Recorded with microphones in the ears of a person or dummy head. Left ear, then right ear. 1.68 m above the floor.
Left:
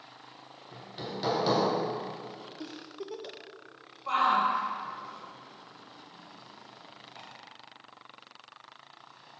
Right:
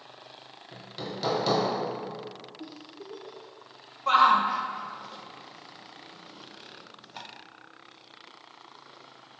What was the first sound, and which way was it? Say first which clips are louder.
Hammering: right 1 dB; 5° right (ahead or behind).